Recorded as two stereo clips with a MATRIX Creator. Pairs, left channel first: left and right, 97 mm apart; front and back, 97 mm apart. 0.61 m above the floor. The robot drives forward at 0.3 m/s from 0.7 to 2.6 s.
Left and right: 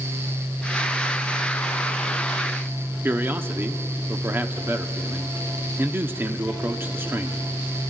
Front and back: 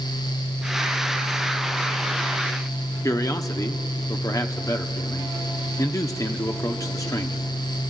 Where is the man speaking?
35° right, 1.0 m.